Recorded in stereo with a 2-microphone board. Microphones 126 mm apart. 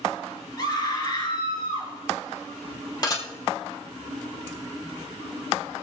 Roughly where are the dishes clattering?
Left.